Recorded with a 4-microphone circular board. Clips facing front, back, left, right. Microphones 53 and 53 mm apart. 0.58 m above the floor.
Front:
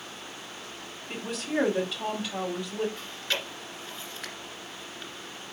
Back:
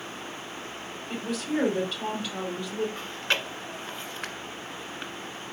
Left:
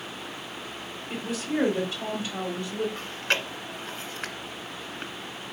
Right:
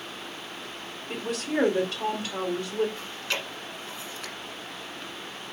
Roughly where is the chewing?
Behind left.